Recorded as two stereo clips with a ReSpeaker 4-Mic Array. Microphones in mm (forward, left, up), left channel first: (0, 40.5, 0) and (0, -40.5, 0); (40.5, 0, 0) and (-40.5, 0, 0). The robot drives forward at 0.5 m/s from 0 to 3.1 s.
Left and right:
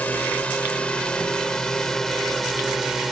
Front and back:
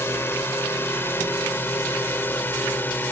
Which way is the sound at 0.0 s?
35° left.